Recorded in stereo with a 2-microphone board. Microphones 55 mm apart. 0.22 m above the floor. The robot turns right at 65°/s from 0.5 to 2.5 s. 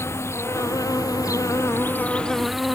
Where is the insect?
50° left; by 2.8 s straight behind.